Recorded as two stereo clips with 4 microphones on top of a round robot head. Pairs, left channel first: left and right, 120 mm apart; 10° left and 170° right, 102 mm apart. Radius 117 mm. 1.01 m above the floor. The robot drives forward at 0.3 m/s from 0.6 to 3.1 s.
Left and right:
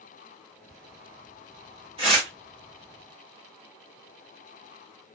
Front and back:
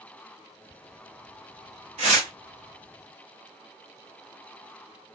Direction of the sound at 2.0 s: 145° right.